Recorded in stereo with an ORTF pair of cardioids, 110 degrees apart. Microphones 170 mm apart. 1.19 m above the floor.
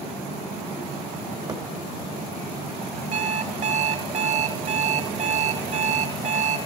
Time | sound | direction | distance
1.5 | a thud | 30° right | 2.5 m
3.1 | an alarm clock | 45° right | 3.5 m